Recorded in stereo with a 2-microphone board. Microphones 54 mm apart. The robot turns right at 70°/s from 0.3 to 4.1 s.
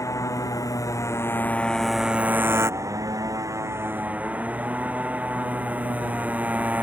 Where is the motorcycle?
70° left; by 6.8 s 25° right.